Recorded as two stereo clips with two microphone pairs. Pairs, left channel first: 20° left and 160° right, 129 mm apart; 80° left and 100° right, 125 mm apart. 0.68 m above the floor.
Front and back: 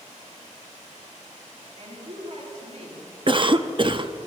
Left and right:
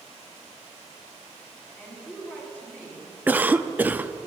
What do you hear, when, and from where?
1.8 s a woman speaking: 160° left, 5.5 m
3.3 s a cough: 160° right, 0.7 m